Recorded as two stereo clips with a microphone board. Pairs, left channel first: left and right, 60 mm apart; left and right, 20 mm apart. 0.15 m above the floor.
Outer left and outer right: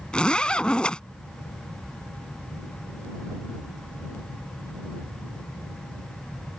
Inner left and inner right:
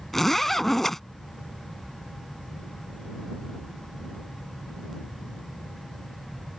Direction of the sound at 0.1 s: 15° left (ahead or behind).